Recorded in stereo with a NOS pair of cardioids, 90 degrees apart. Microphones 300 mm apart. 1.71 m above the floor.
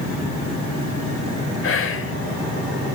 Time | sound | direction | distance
1.6 | whispering | 45° left | 1.1 m